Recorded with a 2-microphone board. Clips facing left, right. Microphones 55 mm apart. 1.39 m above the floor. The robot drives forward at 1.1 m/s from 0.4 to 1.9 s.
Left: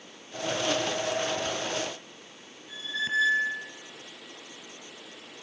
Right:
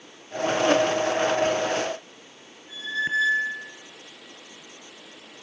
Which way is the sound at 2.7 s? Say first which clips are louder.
Right 4 dB; 30° right (ahead or behind).